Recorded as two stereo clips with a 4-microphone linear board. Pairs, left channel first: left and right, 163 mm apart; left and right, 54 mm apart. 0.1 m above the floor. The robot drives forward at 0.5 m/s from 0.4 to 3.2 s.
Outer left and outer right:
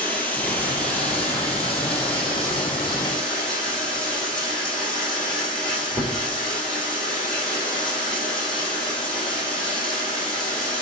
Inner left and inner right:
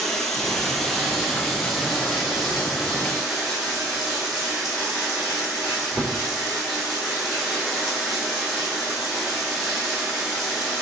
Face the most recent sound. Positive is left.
turn(degrees=5)  # may be behind; listen again after turning